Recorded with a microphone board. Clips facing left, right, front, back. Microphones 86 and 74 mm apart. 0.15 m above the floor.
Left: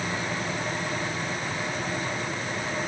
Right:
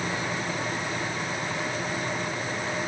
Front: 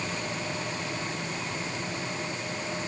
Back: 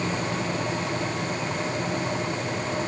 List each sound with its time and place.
Only background noise.